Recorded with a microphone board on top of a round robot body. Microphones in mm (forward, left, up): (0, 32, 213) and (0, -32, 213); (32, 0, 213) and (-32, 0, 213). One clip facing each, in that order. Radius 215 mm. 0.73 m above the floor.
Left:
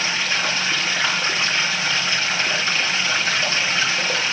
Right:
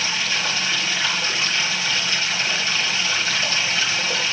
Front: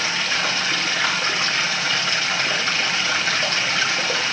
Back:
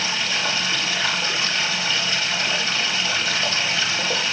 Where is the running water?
35° left, 3 m.